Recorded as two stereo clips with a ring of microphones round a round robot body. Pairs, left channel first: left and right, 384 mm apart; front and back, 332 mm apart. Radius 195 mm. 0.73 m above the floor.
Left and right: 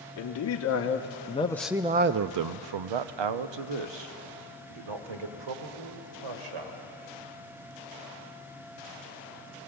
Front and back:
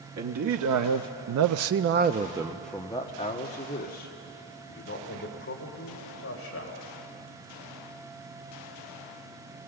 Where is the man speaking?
140° left, 1.1 m; by 6.9 s 60° right, 3 m.